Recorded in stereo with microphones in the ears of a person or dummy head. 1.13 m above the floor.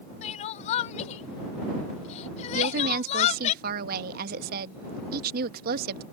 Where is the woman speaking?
55° right (ahead or behind).